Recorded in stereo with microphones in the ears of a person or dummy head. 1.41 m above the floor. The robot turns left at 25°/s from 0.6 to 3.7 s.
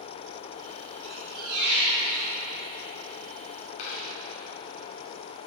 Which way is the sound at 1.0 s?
55° right.